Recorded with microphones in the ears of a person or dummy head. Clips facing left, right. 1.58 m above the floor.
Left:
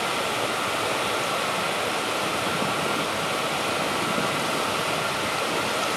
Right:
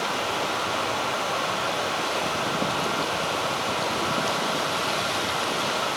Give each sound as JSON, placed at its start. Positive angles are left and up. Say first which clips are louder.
{"t": 0.0, "sound": "running water", "louder": "left 1 dB", "side_deg": 45, "distance_m": 1.1}